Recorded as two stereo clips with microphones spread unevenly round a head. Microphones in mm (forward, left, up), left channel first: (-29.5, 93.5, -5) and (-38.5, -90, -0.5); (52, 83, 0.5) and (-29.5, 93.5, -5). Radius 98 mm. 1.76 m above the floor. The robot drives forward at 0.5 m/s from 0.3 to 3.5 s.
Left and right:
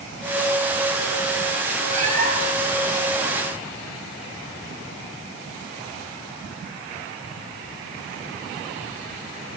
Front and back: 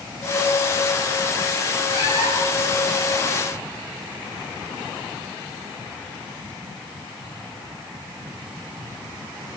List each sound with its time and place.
1.9 s a cat meowing: 35° right, 4.5 m; by 2.7 s 40° right, 4 m